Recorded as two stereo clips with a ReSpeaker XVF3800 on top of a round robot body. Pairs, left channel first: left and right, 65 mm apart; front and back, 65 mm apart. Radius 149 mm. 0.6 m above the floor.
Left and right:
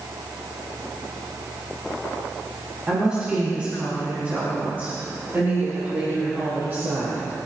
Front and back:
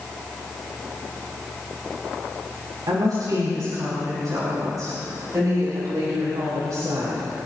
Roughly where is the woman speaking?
Behind.